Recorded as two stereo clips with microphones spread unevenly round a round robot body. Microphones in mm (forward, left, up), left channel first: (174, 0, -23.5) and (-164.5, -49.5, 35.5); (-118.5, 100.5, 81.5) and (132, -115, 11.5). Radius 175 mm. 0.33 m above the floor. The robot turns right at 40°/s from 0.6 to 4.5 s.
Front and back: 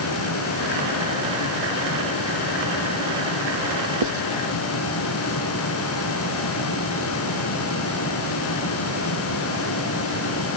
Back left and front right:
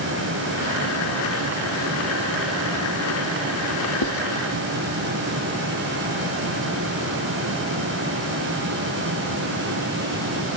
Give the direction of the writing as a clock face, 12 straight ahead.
6 o'clock.